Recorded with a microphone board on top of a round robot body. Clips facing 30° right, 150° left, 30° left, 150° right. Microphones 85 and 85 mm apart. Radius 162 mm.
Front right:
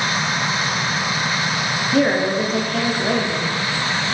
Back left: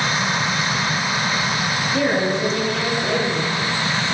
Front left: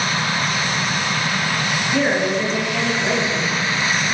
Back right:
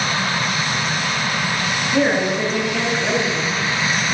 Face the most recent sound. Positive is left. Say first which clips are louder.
# front right 3 dB, back right 1 dB
turn(degrees=-65)